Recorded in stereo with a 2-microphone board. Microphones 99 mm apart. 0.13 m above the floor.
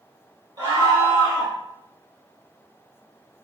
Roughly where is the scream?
Right.